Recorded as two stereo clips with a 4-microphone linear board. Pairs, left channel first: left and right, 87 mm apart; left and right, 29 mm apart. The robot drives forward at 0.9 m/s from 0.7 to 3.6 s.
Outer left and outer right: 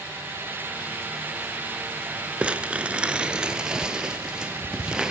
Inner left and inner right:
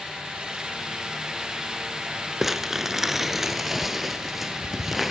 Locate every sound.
2.4 s crumpling: 10° right (ahead or behind), 0.8 m